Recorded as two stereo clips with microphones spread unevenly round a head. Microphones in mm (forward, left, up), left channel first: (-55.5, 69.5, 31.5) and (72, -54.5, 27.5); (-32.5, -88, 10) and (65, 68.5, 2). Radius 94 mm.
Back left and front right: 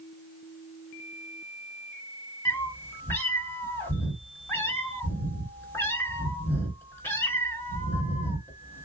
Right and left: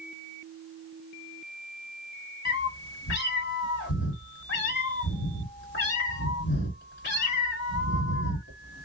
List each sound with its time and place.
2.5 s a cat meowing: 150° right, 1.6 m